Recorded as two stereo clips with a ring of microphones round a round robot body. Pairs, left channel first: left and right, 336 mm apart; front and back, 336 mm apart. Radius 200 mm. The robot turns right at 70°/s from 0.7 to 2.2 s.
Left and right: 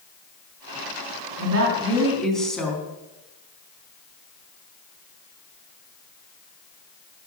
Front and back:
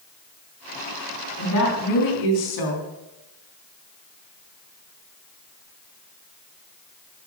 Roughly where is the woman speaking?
Ahead right.